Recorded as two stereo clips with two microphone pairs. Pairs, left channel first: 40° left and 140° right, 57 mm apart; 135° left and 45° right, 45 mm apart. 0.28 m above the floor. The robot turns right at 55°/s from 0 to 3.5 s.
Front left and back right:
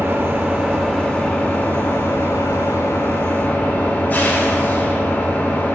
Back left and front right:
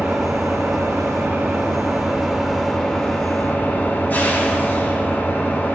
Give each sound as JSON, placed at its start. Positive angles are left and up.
{"t": 0.0, "sound": "an engine running", "azimuth_deg": -100, "distance_m": 1.1}